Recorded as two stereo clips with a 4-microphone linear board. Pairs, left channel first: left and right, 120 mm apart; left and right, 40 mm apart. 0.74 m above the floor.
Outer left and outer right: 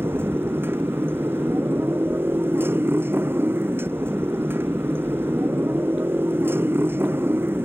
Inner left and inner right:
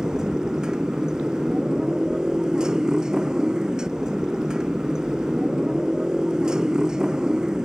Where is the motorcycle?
20° right (ahead or behind).